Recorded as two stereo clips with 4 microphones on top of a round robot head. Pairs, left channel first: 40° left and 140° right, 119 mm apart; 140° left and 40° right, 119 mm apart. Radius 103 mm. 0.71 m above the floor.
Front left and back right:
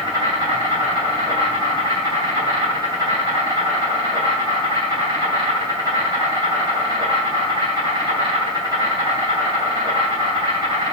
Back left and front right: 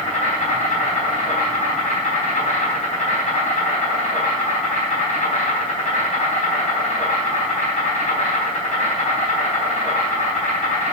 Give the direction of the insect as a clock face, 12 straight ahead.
6 o'clock.